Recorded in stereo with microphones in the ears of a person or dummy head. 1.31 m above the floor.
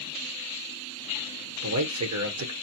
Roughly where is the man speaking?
Right.